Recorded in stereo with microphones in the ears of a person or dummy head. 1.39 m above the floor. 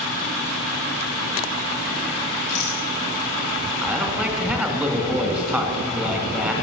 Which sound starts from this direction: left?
A rattle, at 2.5 s.